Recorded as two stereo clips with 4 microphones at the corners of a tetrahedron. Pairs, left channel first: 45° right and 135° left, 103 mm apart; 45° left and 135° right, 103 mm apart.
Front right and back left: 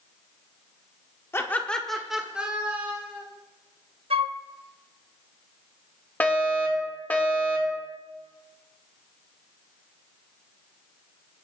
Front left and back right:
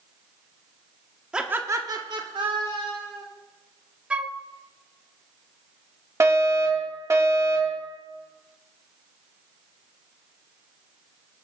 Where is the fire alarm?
105° right, 1.9 m.